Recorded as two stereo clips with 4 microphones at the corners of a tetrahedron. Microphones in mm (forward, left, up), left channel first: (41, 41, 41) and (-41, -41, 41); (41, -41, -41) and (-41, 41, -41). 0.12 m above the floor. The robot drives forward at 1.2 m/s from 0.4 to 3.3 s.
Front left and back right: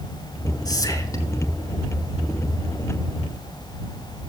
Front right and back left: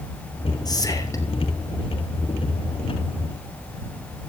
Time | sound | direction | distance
0.7 | whispering | straight ahead | 2.5 m